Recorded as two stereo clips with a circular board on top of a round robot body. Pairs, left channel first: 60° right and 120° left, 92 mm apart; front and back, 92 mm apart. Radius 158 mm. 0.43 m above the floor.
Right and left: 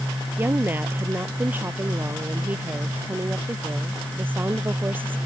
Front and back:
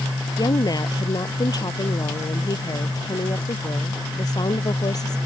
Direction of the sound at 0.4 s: 50° left.